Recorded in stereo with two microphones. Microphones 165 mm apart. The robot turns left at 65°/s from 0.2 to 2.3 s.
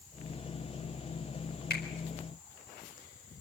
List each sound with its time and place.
1.7 s a finger snap: 80° left, 4.5 m; by 1.8 s 70° left (ahead or behind), 4.5 m